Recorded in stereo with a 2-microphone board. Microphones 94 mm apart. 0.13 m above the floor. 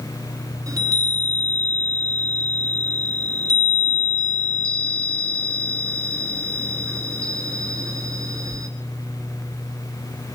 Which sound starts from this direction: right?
A chime, at 0.7 s.